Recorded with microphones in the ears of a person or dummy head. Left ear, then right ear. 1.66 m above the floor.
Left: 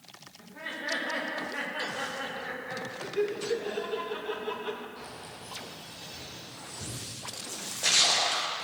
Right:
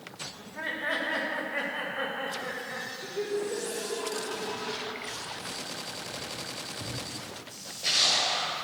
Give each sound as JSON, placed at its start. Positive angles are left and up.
{"t": 0.4, "sound": "laughter", "side_deg": -20, "distance_m": 3.5}
{"t": 3.0, "sound": "laughter", "side_deg": 45, "distance_m": 1.9}
{"t": 5.0, "sound": "keys jangling", "side_deg": 10, "distance_m": 4.0}
{"t": 7.5, "sound": "a splash", "side_deg": 55, "distance_m": 1.8}